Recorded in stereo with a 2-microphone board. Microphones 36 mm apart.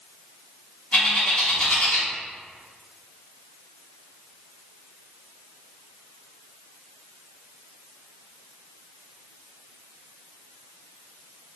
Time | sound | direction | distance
0.9 | a bird | 30° left (ahead or behind) | 1.5 m